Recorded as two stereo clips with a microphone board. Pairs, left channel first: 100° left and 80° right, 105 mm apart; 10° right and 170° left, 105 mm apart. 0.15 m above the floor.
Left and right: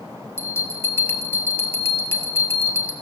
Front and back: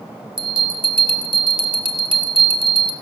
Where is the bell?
160° left, 1.3 m.